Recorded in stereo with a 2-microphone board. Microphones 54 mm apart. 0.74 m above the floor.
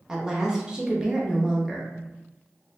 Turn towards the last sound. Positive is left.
turn(degrees=-15)  # may be behind; listen again after turning